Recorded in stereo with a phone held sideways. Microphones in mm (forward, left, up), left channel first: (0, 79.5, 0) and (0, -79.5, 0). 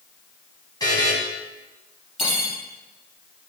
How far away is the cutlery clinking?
About 3.5 m.